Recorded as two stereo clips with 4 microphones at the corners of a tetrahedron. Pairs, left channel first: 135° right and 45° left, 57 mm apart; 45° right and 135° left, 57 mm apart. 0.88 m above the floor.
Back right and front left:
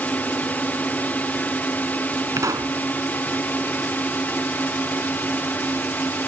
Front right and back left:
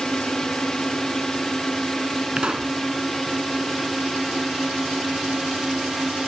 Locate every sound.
0.0 s a drone: 115° right; by 6.3 s 135° right
2.4 s a pop: 65° left